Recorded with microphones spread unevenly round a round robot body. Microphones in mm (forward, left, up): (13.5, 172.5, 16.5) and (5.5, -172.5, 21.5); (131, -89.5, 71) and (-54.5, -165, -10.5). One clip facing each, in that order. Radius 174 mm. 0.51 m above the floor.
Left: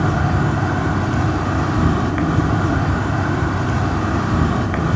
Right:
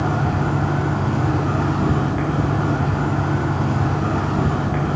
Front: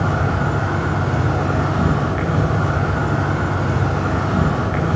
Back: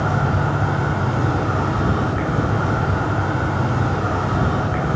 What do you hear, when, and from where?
0.0 s an insect: 105° left, 1.5 m